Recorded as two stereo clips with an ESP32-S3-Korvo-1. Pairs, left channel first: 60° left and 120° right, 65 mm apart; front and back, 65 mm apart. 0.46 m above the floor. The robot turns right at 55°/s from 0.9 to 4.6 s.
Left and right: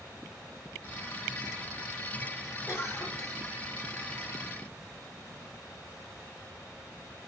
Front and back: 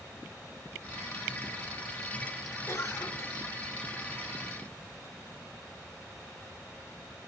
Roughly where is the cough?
Ahead.